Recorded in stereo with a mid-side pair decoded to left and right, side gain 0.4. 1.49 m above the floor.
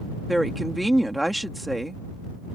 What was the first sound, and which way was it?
A woman speaking, 10° right.